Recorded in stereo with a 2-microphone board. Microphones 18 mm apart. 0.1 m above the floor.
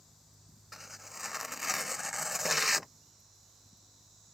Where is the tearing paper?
10° right (ahead or behind).